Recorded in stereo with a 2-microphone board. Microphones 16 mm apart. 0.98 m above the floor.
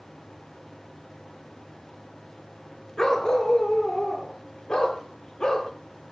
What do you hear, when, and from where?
3.0 s a dog barking: 35° left (ahead or behind), 3.5 m; by 5.7 s 45° left (ahead or behind), 6.5 m